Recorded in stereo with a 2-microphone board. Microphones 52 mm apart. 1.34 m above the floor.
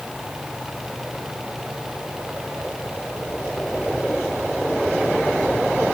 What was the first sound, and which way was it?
Only background noise.